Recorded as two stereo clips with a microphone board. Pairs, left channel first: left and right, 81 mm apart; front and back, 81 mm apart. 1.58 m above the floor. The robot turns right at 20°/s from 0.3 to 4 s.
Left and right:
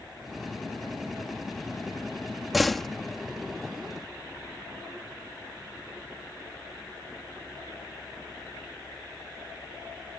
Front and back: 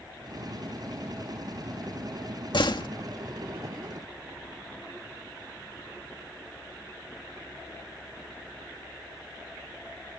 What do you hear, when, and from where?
2.5 s a door slam: straight ahead; by 2.9 s 5° left